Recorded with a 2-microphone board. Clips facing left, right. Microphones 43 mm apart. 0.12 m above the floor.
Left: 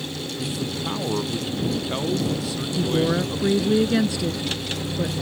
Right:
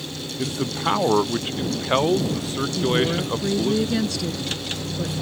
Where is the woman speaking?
20° left (ahead or behind).